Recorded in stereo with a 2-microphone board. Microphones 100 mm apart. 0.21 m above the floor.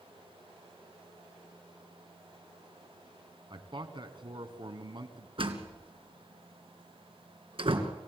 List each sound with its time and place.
3.5 s a man speaking: 50° right (ahead or behind), 2 m
5.4 s a door slam: 60° right (ahead or behind), 2.5 m